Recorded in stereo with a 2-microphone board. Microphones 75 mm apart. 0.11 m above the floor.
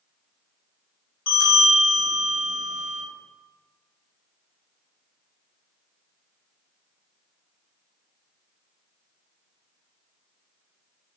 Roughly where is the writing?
No writing in this recording.